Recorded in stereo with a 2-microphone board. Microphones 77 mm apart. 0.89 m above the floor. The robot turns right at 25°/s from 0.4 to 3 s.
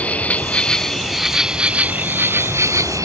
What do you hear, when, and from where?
0.0 s an insect: 160° left; by 3.1 s 135° right